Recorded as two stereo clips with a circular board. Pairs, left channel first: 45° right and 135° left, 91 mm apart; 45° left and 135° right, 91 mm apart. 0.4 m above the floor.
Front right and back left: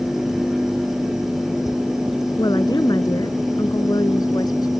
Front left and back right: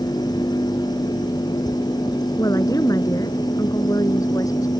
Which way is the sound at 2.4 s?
5° right.